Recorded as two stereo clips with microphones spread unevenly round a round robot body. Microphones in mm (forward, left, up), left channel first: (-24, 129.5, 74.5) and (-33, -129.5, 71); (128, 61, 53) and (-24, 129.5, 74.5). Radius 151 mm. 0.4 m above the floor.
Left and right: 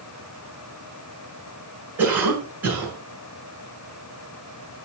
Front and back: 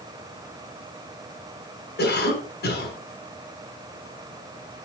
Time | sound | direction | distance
2.0 | a cough | 10° right | 5 m